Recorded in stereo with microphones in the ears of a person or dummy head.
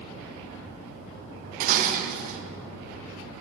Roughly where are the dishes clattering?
Right.